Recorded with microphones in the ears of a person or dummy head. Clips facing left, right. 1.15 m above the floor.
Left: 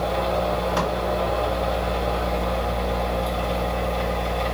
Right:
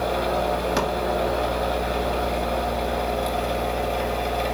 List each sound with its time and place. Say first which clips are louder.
0.0 s a machine running: even; 30° right (ahead or behind), 2 m